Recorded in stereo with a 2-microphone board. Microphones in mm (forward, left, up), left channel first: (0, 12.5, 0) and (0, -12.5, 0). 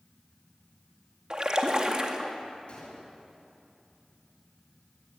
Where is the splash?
30° right (ahead or behind), 2.5 m.